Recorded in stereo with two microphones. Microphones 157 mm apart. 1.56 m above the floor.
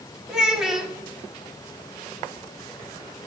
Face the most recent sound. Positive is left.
turn(degrees=-5)  # may be behind; listen again after turning